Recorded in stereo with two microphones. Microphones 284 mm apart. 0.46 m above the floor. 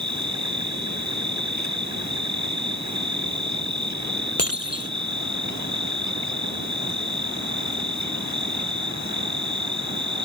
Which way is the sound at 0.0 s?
75° right (ahead or behind).